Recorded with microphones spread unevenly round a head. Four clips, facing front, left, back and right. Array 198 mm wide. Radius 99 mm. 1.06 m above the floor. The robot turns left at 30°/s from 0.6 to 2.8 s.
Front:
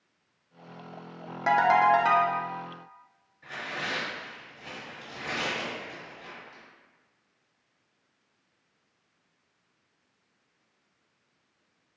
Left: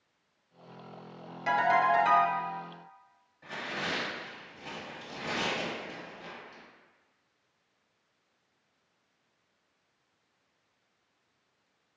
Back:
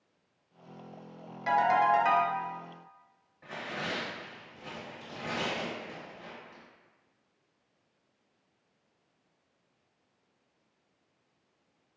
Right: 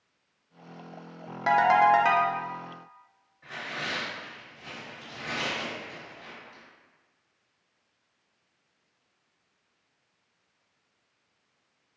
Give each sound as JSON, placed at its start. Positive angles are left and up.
{"t": 1.5, "sound": "a ringtone", "azimuth_deg": -45, "distance_m": 0.5}
{"t": 3.4, "sound": "tearing paper", "azimuth_deg": 155, "distance_m": 1.0}